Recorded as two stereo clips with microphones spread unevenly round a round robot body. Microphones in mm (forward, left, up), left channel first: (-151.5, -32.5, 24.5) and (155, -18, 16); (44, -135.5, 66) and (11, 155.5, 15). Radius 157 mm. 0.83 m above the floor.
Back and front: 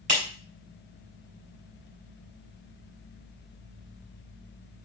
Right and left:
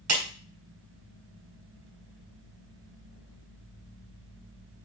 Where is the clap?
70° left, 3.5 m.